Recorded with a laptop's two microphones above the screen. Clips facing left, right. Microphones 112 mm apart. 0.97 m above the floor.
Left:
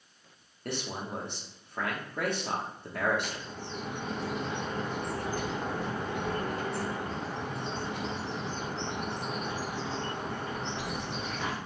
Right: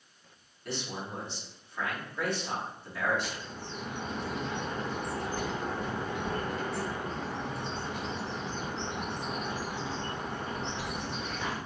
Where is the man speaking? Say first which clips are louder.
Left 1 dB; 50° left (ahead or behind), 0.8 m.